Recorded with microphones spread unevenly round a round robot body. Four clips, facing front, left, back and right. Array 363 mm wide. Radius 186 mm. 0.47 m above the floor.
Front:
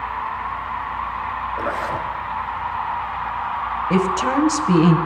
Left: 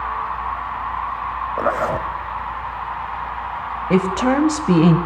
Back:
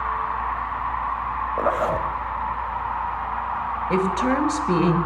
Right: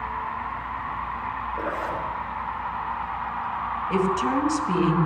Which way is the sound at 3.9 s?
80° left.